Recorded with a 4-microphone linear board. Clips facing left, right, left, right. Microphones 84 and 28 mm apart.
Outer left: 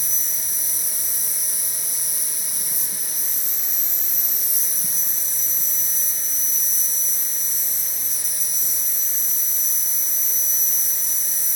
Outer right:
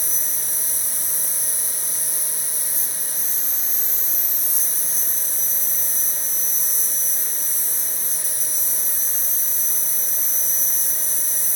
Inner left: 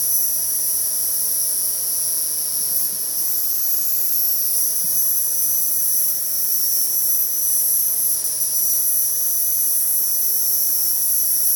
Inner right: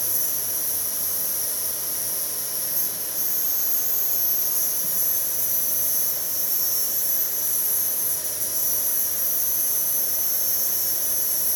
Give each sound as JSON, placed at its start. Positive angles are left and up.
{"t": 0.0, "sound": "an insect", "side_deg": 65, "distance_m": 0.8}